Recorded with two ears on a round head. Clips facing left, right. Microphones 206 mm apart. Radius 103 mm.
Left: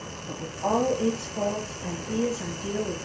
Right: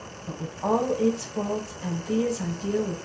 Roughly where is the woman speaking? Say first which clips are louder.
Right 2 dB; right.